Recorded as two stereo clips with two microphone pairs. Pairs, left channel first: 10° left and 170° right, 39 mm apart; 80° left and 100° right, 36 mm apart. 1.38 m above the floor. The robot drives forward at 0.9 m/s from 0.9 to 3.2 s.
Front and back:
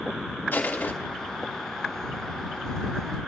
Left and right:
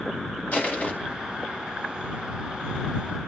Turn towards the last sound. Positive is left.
turn(degrees=85)